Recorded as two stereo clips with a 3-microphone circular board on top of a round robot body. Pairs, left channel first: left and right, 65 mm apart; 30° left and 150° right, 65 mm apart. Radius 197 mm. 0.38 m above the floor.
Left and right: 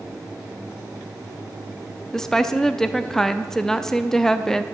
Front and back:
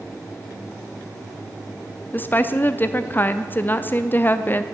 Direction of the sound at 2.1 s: 15° left.